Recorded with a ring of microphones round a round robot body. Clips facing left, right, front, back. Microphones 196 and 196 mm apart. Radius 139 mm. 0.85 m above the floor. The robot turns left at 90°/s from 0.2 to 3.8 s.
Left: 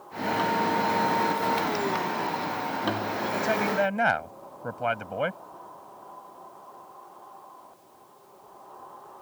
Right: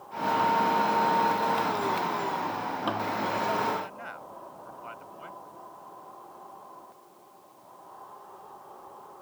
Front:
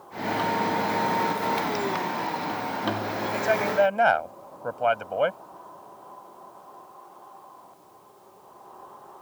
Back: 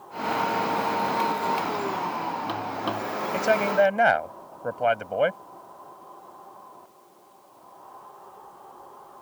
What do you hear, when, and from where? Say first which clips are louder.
3.3 s a man speaking: left 8 dB, back 2 dB; 145° left; by 5.4 s 105° left